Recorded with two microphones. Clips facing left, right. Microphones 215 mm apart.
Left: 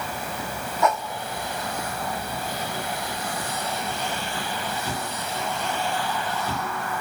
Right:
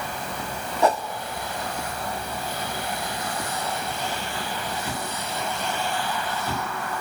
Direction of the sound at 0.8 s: 35° right (ahead or behind).